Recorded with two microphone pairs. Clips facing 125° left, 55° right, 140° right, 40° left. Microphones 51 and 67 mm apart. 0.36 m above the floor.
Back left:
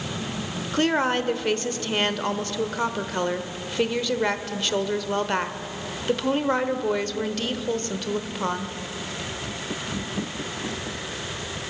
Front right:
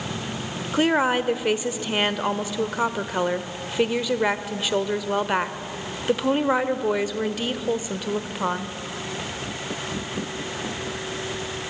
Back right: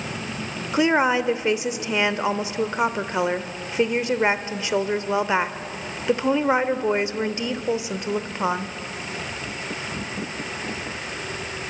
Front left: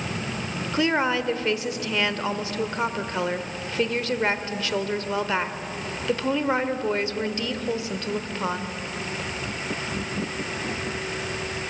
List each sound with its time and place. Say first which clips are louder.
0.7 s a woman speaking: front right 2 dB, back right 4 dB; 115° right, 0.9 m